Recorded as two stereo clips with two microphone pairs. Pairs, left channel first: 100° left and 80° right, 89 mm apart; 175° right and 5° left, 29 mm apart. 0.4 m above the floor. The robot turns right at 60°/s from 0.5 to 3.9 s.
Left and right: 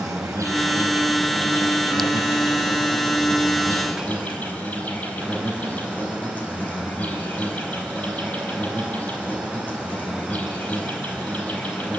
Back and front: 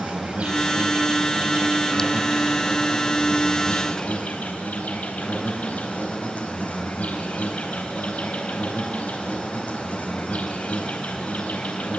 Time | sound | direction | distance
0.0 | an insect | 35° right | 4 m